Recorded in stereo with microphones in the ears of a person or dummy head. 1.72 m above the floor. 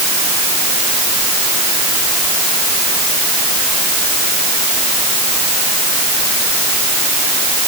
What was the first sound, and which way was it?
Only background noise.